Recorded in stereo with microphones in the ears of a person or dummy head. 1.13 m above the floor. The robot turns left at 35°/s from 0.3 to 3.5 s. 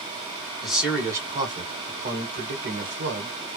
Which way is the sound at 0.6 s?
Straight ahead.